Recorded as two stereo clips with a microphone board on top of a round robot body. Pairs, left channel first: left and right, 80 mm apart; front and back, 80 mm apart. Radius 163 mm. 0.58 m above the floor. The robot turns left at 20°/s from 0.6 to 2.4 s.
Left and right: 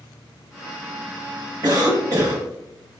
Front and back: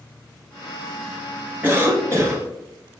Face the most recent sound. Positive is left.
turn(degrees=-130)